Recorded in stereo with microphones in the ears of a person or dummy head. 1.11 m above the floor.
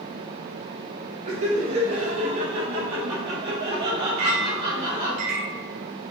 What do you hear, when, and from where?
1.2 s laughter: 40° right (ahead or behind), 3 m; by 5.2 s 30° right (ahead or behind), 5.5 m
4.2 s a clink: 45° right (ahead or behind), 3.5 m